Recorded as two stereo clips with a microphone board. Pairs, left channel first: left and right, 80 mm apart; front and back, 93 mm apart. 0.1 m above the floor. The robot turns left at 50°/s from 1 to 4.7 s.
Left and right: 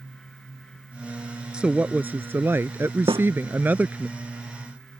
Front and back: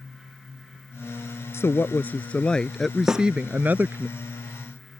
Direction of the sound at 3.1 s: 100° right.